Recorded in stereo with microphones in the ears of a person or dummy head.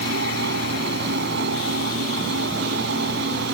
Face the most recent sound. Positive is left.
turn(degrees=-65)  # may be behind; listen again after turning